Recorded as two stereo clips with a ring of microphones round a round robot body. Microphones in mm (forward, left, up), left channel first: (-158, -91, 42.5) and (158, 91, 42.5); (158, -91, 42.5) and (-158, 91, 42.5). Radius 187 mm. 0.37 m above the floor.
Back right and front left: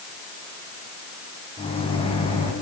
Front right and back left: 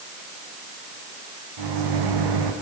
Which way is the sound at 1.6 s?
135° left.